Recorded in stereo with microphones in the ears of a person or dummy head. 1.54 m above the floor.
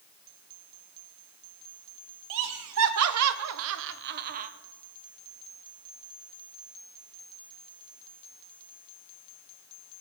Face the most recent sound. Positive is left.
turn(degrees=-40)  # may be behind; listen again after turning